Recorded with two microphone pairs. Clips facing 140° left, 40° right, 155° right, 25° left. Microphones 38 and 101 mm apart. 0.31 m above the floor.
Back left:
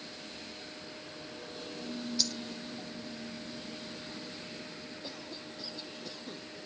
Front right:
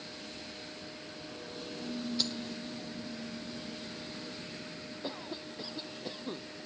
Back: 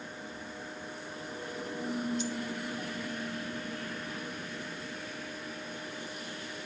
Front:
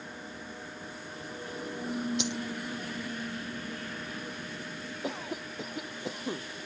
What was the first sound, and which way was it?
A dropped coin, 10° left.